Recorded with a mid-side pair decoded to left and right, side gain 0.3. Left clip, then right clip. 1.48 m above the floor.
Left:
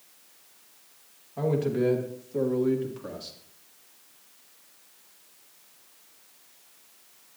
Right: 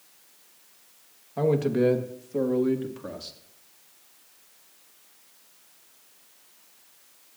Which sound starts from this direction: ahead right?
A man speaking, at 1.4 s.